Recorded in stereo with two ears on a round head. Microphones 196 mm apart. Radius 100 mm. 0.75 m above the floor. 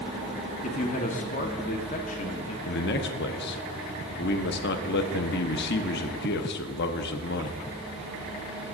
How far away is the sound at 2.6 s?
About 0.9 m.